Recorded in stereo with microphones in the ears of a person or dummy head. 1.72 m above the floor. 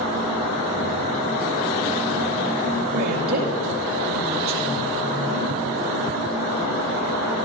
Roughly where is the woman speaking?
Right.